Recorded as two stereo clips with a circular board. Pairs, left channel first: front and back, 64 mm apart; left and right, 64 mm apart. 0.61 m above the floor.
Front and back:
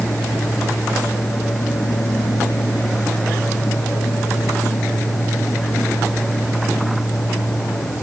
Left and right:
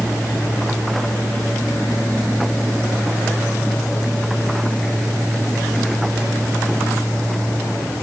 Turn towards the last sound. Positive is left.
No sound to turn to.